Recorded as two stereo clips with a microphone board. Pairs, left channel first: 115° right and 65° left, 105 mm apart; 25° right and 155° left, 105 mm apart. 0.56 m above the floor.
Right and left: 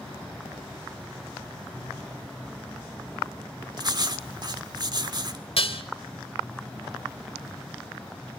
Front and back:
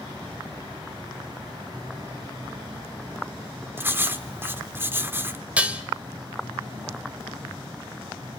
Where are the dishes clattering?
125° right, 1.6 m.